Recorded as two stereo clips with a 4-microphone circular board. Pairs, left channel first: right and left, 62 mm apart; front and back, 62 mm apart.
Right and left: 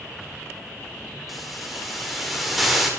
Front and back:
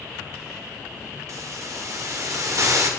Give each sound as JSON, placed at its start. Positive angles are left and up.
{"t": 1.3, "sound": "a hiss", "azimuth_deg": 175, "distance_m": 1.8}